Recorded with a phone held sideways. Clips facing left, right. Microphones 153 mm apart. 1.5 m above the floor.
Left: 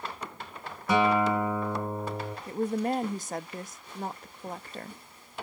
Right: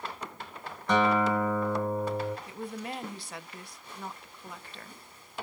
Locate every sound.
0.9 s a guitar: 5° left (ahead or behind), 1.5 m
2.5 s a woman speaking: 45° left (ahead or behind), 0.5 m